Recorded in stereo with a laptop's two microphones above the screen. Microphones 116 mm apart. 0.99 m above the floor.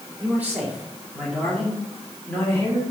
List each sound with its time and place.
0.2 s a man speaking: 15° right (ahead or behind), 2.5 m; by 2.8 s 25° left (ahead or behind), 2.5 m